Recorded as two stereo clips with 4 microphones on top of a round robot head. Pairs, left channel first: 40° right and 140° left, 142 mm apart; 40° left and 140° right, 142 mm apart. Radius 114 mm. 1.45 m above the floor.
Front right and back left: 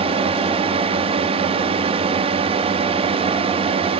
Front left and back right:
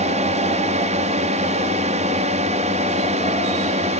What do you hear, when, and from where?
0.0 s a drone: 175° right